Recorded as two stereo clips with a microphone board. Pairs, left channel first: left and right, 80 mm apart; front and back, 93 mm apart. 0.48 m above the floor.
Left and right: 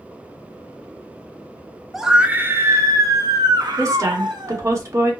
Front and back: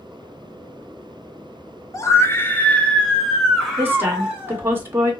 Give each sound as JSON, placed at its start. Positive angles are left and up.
{"t": 1.9, "sound": "a scream", "azimuth_deg": -5, "distance_m": 0.8}
{"t": 3.8, "sound": "a woman speaking", "azimuth_deg": -120, "distance_m": 1.6}